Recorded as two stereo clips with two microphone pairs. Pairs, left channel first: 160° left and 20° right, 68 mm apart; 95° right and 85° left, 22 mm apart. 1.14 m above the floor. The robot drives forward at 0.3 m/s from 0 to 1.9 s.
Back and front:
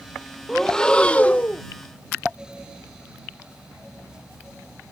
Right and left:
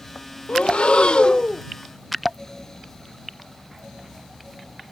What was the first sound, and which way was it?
Breathing, 115° right.